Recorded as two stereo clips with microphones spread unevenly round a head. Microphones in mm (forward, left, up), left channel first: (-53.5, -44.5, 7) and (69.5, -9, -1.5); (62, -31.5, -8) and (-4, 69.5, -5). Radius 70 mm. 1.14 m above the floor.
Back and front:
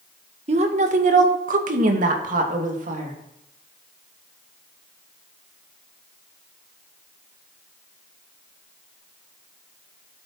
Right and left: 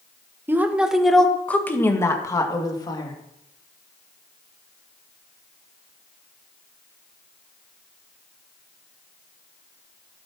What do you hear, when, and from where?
0.5 s a woman speaking: 50° left, 1.2 m; by 3.1 s 5° right, 2.5 m